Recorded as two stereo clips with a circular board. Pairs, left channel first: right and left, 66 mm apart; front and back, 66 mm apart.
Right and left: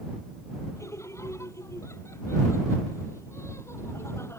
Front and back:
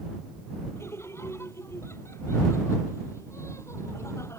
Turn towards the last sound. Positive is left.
turn(degrees=-40)